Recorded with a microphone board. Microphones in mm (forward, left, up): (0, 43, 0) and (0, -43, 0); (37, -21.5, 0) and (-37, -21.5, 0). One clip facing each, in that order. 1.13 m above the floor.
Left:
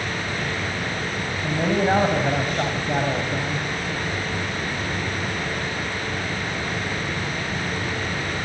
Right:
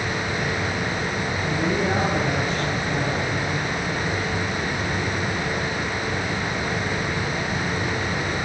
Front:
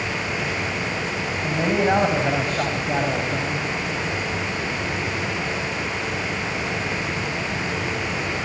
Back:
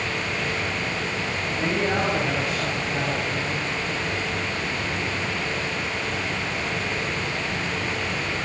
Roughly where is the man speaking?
Ahead left.